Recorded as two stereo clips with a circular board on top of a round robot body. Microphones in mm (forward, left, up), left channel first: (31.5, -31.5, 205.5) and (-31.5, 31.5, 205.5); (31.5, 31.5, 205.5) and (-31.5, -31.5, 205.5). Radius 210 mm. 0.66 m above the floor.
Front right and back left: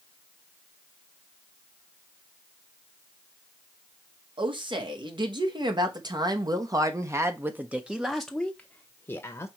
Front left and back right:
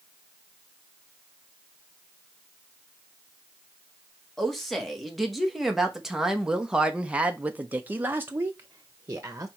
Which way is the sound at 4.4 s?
130° left.